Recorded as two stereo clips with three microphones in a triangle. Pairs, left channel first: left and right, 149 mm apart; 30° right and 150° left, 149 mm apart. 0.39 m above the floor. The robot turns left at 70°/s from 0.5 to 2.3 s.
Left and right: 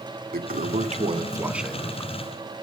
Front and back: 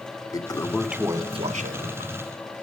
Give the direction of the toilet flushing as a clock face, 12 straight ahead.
3 o'clock.